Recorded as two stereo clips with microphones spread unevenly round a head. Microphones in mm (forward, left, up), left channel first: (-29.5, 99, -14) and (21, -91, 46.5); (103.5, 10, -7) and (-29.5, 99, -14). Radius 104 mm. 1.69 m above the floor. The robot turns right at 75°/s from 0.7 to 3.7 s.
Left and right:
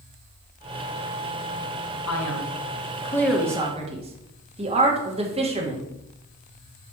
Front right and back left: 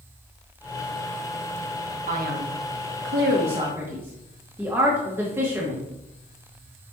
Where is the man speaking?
105° left, 2.0 m; by 5.9 s 135° right, 2.0 m.